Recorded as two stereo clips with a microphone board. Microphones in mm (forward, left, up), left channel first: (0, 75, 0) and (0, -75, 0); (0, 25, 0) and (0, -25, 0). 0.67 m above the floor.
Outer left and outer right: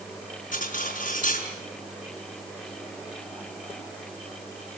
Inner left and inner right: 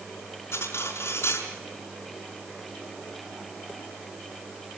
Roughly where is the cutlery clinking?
Left.